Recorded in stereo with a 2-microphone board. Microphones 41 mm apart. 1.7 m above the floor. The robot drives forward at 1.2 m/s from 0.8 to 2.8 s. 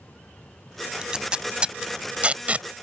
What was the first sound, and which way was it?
Tape being pulled, 25° right (ahead or behind).